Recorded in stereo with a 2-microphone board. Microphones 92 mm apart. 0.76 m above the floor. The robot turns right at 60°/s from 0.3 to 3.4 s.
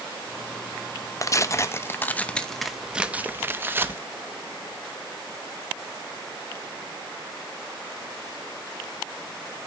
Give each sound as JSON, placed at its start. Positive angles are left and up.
{"t": 1.2, "sound": "tearing paper", "azimuth_deg": 90, "distance_m": 0.7}